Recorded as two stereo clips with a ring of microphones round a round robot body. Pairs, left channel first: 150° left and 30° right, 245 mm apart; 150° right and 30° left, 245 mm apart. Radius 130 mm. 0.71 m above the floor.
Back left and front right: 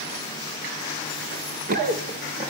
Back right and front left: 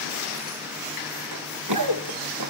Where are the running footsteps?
20° left, 3 m; by 2.5 s 40° left, 3 m.